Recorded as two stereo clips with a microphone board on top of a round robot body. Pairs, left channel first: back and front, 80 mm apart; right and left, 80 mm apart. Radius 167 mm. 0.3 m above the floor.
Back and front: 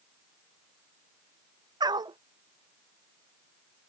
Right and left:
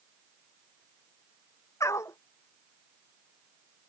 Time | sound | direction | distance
1.8 | a dog barking | 35° right | ?